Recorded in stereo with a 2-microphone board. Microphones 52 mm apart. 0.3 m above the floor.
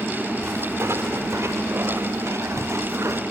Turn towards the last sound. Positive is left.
turn(degrees=-70)  # may be behind; listen again after turning